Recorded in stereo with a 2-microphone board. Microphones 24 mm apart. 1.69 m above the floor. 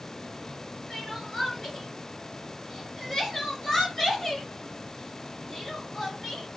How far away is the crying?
About 2.5 m.